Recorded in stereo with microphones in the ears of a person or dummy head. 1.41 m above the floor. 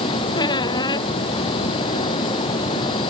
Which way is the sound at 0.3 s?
25° left (ahead or behind).